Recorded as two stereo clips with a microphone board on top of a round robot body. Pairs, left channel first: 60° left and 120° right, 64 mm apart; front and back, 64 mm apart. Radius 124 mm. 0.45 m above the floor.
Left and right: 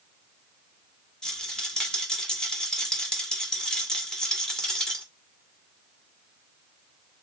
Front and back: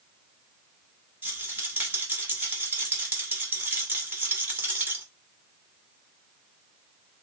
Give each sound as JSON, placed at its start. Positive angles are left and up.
{"t": 1.2, "sound": "a rattle", "azimuth_deg": 135, "distance_m": 1.6}